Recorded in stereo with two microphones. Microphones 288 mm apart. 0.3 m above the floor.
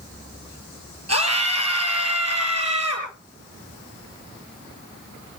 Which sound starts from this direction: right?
A scream, at 1.1 s.